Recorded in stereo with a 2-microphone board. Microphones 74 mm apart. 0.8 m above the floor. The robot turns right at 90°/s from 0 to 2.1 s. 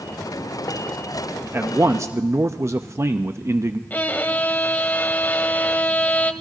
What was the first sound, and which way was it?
A man speaking, 125° right.